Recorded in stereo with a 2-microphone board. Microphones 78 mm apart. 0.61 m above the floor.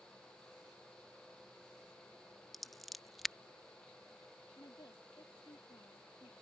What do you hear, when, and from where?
2.5 s scissors: centre (ahead or behind)
4.6 s a woman speaking: 65° left (ahead or behind)